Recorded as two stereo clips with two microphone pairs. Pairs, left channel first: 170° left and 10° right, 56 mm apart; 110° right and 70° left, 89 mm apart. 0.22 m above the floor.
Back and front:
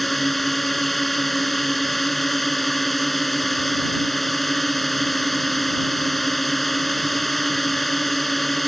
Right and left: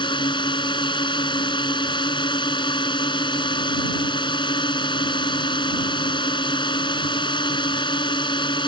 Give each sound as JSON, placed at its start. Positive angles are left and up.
{"t": 0.0, "sound": "a drone", "azimuth_deg": -105}